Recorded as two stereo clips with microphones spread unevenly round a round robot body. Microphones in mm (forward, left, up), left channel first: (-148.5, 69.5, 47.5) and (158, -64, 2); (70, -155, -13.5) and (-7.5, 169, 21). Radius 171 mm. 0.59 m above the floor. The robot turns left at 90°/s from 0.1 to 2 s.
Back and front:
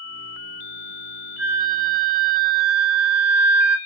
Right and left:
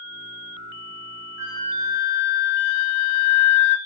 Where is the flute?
35° left, 0.5 m; by 3.8 s 20° right, 0.5 m.